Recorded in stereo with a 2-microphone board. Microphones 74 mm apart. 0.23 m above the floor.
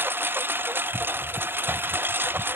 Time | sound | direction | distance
0.0 | a lawn mower | 30° right (ahead or behind) | ?